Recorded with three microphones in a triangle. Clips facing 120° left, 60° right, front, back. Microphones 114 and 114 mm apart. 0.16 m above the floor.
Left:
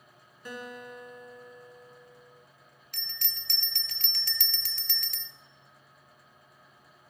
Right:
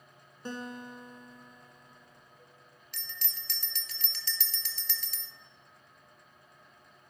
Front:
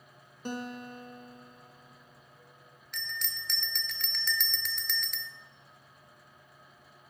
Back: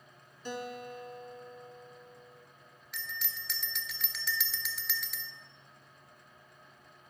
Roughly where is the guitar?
Ahead.